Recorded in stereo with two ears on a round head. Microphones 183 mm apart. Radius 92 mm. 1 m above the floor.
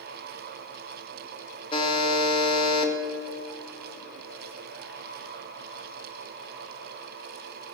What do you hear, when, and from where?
1.7 s a buzzer: 25° left (ahead or behind), 0.8 m